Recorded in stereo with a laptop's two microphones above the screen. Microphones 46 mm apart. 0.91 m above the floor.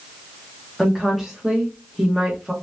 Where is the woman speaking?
5° right (ahead or behind), 1.1 m.